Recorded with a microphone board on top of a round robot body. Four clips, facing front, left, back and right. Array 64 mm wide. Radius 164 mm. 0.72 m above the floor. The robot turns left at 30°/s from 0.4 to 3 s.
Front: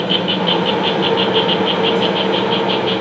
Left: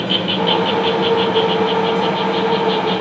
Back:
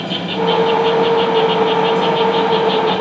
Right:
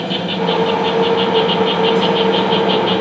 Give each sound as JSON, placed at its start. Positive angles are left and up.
{"t": 0.0, "sound": "an insect", "azimuth_deg": 25, "distance_m": 1.6}